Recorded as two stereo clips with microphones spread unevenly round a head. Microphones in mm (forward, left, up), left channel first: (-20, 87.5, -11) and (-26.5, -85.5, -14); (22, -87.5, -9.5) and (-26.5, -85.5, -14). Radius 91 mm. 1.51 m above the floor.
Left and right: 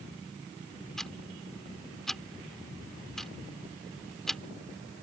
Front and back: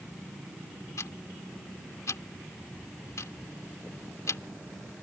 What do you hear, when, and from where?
1.0 s ticking: straight ahead